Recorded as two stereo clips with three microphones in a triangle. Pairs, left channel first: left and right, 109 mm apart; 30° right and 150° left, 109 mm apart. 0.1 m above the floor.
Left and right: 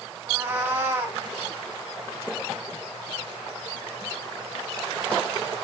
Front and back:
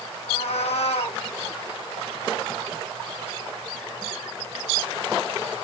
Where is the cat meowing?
20° right, 1.9 m.